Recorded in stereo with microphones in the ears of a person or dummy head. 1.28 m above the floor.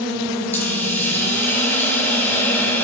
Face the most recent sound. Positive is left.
turn(degrees=10)  # may be behind; listen again after turning